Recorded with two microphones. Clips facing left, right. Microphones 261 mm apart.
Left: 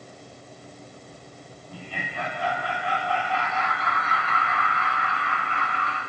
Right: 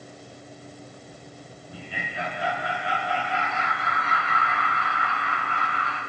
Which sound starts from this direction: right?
Laughter, at 1.7 s.